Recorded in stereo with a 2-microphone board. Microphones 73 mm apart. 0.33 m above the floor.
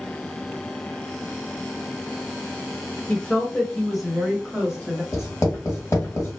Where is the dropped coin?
I don't hear a dropped coin.